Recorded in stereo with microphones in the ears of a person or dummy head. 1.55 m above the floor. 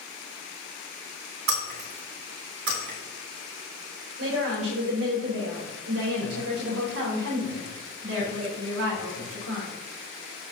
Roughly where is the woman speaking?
Right.